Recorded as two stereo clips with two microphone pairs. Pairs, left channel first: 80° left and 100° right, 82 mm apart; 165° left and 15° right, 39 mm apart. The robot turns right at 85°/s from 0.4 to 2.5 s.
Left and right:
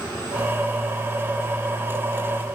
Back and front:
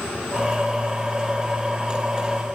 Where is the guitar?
No guitar in this recording.